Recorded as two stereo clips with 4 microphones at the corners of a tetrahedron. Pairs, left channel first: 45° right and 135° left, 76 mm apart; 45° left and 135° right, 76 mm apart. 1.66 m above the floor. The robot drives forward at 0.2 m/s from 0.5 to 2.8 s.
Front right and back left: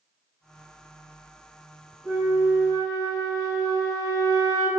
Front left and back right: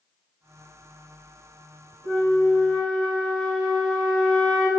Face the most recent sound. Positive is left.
turn(degrees=120)